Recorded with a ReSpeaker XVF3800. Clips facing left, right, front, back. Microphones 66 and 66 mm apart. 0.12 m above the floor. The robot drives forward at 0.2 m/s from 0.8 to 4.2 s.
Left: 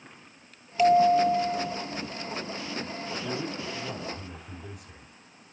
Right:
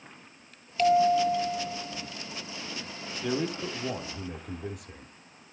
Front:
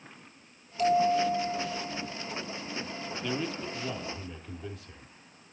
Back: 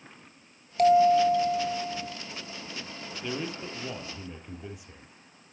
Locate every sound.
0.8 s a bell: 165° left, 1.5 m; by 2.1 s 170° left, 1.7 m
3.2 s a man speaking: 105° right, 2.5 m; by 5.5 s 110° right, 2.5 m